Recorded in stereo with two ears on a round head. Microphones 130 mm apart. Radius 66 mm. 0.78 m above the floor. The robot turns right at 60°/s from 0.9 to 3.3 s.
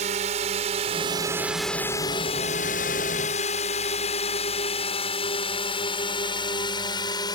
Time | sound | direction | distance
0.0 | a drone | 45° right (ahead or behind) | ?